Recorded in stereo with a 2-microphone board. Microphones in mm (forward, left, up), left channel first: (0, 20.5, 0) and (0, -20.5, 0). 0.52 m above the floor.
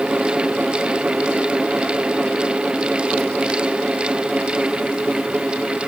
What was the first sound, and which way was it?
Only background noise.